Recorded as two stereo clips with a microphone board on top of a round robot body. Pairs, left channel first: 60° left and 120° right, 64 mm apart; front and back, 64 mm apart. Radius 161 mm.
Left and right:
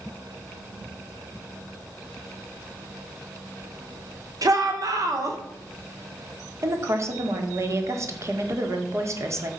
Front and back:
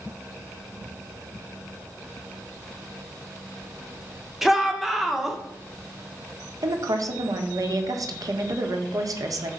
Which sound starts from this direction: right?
A shout, at 4.4 s.